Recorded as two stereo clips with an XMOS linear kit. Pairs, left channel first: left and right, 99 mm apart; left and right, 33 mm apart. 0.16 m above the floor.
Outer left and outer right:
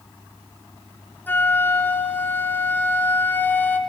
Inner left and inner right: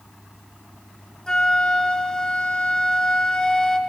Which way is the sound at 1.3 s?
20° left (ahead or behind).